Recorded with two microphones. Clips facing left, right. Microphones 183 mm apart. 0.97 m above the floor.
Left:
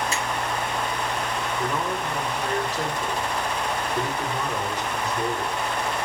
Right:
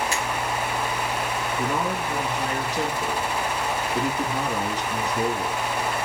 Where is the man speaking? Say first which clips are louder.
Right 2 dB; 75° right (ahead or behind), 3.5 m.